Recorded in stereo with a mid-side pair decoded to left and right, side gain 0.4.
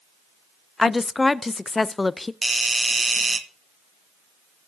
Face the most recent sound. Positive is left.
turn(degrees=-25)